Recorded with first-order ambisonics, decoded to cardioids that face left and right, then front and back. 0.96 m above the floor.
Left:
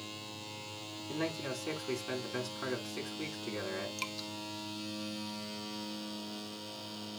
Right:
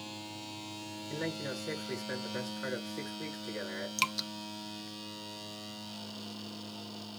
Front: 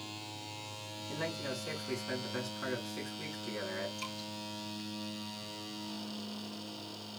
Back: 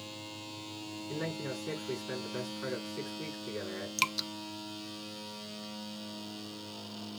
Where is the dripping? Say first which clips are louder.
Right 7 dB, back 10 dB; 150° right, 0.5 m.